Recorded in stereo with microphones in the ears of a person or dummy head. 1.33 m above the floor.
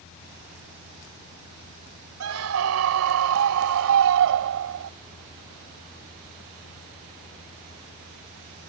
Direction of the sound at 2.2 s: 90° right.